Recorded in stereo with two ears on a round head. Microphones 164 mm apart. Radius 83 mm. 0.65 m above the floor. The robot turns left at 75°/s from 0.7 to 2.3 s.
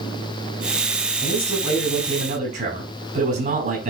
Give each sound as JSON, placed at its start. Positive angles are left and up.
{"t": 1.2, "sound": "a man speaking", "azimuth_deg": 40, "distance_m": 7.5}